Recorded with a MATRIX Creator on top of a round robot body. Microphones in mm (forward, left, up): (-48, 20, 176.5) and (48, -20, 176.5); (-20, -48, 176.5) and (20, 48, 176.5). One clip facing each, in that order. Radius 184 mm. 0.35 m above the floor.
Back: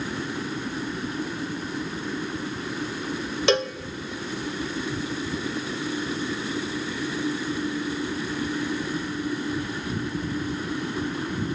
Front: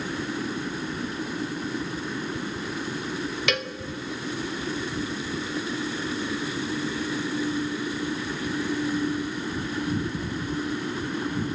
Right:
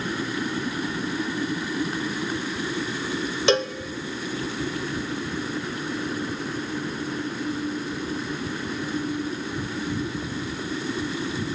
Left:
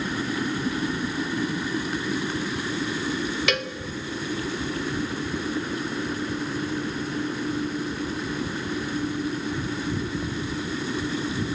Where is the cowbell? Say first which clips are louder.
Back 10 dB, right 6 dB; 160° right, 0.9 m.